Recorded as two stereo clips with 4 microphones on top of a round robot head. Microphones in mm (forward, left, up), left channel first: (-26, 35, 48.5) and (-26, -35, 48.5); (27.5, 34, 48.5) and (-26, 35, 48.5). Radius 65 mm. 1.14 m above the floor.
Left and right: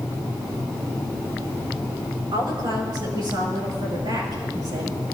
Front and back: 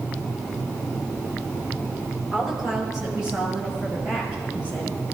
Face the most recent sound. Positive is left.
turn(degrees=-110)